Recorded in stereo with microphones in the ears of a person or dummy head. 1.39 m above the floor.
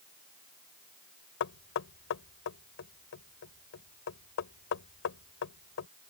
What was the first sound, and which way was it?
Knocking, 65° left (ahead or behind).